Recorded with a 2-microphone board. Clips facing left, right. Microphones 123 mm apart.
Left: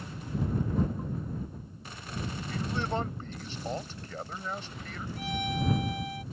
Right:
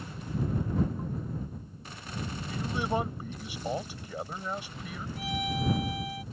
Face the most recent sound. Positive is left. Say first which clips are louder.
# even
turn(degrees=0)  # may be behind; listen again after turning